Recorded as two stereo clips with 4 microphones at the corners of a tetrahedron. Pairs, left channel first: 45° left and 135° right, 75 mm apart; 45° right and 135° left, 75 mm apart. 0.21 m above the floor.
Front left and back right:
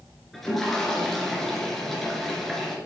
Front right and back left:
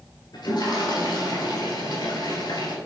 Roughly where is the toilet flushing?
Ahead right.